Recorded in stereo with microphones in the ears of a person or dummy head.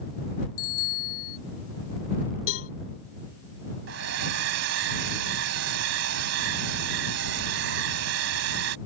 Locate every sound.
0.6 s a bicycle bell: 55° left (ahead or behind)
2.5 s a cowbell: 75° left (ahead or behind)
3.9 s a hair dryer: 70° right (ahead or behind)